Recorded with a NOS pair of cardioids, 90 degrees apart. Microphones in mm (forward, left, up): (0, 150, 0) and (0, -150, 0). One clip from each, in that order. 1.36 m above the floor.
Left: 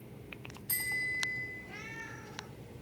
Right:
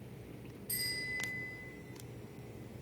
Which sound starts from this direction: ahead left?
A bicycle bell, at 0.7 s.